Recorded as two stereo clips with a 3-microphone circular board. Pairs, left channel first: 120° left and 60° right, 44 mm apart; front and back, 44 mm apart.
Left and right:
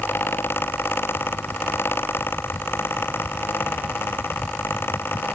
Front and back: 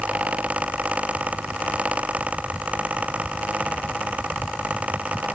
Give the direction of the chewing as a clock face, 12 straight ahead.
No chewing in this recording.